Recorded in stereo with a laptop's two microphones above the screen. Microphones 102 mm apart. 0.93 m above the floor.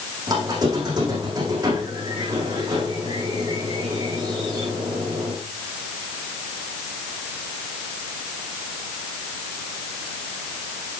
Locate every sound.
0.3 s a squeak: 40° right (ahead or behind), 8 m